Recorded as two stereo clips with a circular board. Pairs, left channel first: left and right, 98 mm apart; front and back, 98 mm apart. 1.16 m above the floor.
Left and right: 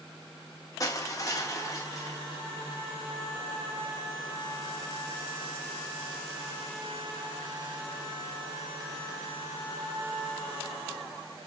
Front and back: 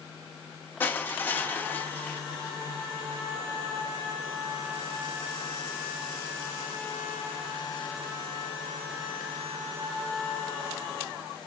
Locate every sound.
0.8 s crushing: 60° left, 0.8 m